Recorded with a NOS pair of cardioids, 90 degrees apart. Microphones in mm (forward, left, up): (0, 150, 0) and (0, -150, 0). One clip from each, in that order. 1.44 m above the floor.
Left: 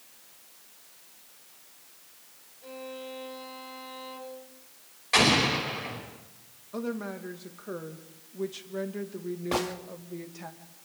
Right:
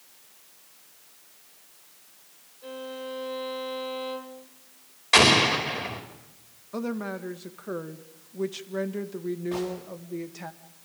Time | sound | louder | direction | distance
2.6 | a violin | right 4 dB | 45° right | 2.5 m
5.1 | an explosion | right 4 dB | 45° right | 5 m
6.7 | a woman speaking | right 2 dB | 25° right | 1.7 m
9.5 | a gunshot | left 4 dB | 65° left | 1.8 m